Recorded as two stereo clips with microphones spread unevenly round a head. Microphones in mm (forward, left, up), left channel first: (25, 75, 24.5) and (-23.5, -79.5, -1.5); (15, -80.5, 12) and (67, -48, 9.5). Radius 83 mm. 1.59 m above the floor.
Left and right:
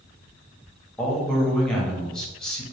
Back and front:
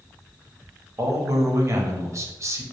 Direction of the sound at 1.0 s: 10° right.